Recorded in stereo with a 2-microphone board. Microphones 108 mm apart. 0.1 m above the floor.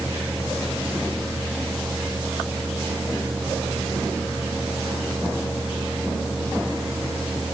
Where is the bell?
No bell in this recording.